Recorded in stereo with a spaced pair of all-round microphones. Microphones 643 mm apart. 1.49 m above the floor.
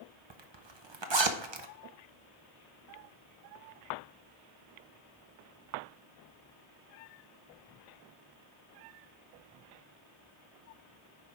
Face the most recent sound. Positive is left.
turn(degrees=-45)  # may be behind; listen again after turning